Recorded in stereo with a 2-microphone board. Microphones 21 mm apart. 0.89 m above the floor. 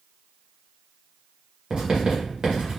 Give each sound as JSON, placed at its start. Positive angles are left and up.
{"t": 1.7, "sound": "writing", "side_deg": -40, "distance_m": 1.2}